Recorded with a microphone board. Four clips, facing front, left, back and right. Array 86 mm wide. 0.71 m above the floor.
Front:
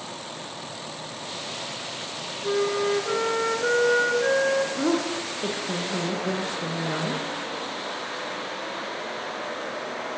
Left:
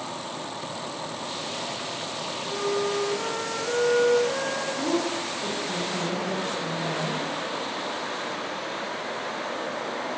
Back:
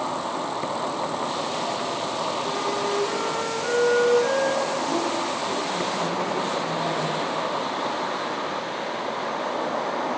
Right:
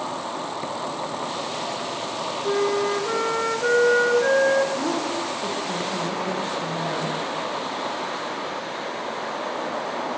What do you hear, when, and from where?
0.0 s an insect: 150° right, 0.8 m
2.4 s a flute: 65° right, 5 m
4.8 s a woman speaking: 20° right, 9.5 m